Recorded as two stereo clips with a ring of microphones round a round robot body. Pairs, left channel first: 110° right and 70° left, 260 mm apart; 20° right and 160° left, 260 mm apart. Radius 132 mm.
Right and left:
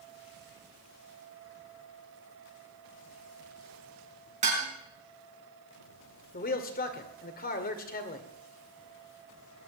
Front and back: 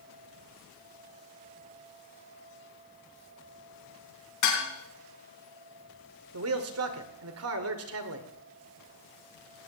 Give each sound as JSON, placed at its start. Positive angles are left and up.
{"t": 4.4, "sound": "dishes clattering", "azimuth_deg": 0, "distance_m": 4.5}
{"t": 6.3, "sound": "a man speaking", "azimuth_deg": -170, "distance_m": 2.0}